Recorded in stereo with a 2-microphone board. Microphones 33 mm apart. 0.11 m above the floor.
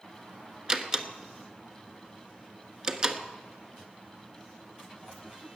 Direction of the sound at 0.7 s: 20° right (ahead or behind).